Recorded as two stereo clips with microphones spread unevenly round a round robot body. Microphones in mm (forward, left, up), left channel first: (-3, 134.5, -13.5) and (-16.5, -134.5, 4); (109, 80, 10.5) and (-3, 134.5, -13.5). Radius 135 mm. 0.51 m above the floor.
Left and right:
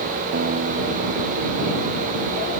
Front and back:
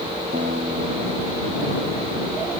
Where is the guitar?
145° right.